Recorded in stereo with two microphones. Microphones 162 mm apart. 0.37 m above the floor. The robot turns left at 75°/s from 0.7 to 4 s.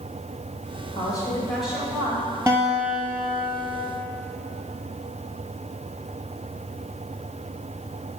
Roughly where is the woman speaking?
Ahead left.